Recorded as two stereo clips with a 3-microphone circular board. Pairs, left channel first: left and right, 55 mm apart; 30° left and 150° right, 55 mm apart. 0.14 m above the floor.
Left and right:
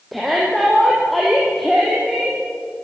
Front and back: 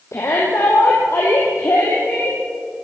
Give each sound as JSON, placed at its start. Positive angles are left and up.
{"t": 0.1, "sound": "a shout", "azimuth_deg": 0, "distance_m": 5.0}